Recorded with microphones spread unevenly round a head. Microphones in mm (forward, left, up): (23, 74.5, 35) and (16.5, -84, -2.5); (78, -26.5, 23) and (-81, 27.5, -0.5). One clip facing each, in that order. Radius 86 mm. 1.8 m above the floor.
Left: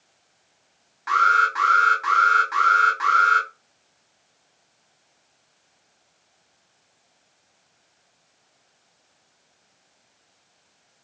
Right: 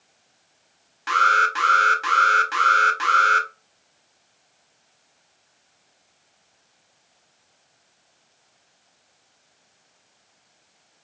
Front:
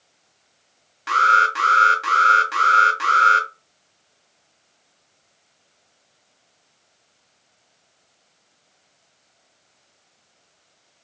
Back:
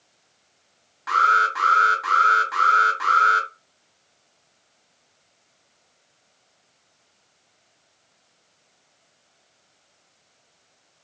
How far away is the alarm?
About 0.7 m.